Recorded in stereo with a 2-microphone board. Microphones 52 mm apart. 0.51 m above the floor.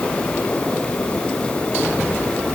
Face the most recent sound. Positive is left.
No sound to turn to.